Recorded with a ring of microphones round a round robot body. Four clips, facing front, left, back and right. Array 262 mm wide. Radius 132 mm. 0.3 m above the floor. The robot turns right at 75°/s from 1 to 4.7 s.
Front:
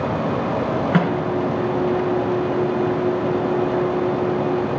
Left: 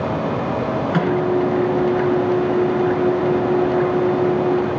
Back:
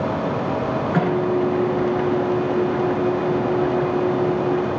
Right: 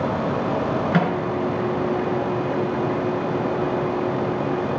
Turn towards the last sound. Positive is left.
turn(degrees=-95)